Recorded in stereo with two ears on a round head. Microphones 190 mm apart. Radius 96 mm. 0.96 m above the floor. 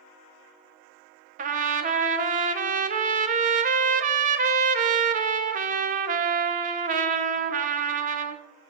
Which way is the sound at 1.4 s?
35° right (ahead or behind).